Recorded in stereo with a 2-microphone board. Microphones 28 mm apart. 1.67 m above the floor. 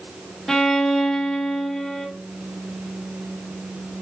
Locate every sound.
0.5 s a violin: 5° left (ahead or behind), 1.8 m